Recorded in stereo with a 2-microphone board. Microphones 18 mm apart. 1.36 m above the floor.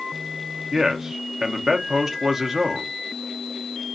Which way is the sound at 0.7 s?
25° right (ahead or behind).